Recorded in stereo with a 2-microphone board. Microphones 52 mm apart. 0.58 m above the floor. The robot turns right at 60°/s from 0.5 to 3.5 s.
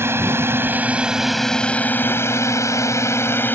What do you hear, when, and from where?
0.0 s a drone: 50° right (ahead or behind); by 3.6 s 40° left (ahead or behind)